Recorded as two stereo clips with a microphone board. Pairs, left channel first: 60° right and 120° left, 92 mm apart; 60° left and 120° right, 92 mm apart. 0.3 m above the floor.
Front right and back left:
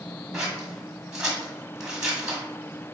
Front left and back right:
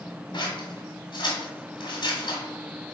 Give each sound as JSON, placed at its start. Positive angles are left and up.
{"t": 0.3, "sound": "scissors", "azimuth_deg": 40, "distance_m": 1.4}